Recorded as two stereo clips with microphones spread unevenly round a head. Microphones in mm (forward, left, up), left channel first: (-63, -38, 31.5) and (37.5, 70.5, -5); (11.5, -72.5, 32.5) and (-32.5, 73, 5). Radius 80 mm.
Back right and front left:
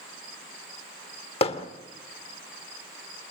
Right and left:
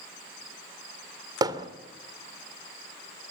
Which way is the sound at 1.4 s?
175° left.